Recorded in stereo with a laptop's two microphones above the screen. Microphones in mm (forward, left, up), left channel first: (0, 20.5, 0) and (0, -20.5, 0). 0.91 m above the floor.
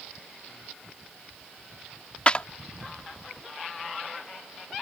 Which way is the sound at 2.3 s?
30° left (ahead or behind).